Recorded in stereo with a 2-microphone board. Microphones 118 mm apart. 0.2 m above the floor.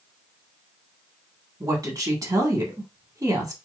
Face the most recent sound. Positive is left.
turn(degrees=-30)  # may be behind; listen again after turning